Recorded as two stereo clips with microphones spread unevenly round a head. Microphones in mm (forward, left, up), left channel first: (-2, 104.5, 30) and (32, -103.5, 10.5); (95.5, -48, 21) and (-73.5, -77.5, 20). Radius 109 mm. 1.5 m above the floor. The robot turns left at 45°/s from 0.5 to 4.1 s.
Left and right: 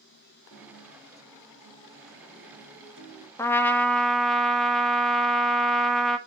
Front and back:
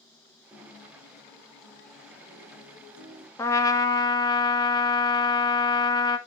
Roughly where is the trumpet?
Ahead left.